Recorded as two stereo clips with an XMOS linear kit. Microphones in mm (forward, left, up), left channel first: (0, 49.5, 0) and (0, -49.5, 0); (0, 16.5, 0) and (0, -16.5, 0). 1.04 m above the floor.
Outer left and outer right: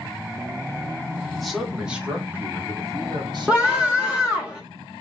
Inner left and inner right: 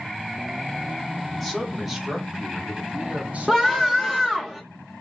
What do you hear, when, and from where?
1.3 s a man speaking: 5° left (ahead or behind), 1.6 m; by 4.4 s 60° right (ahead or behind), 1.7 m
3.5 s a scream: 15° right (ahead or behind), 1.0 m